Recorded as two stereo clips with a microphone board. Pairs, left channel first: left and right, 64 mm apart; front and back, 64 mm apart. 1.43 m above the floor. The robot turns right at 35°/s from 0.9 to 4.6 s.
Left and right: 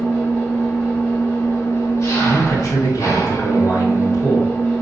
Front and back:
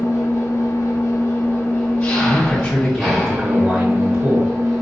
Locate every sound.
0.0 s an engine running: 25° left, 2.5 m; by 4.8 s 155° left, 2.5 m
2.2 s a man speaking: 60° left, 2.5 m; by 4.5 s 140° left, 2.5 m